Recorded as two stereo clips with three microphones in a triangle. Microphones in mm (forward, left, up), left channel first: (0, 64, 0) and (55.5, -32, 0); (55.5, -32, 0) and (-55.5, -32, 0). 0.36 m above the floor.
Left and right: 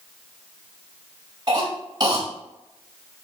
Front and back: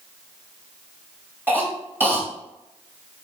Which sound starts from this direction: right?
A cough, at 1.5 s.